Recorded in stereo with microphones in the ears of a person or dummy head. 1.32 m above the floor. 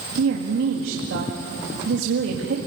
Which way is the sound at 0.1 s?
75° right (ahead or behind).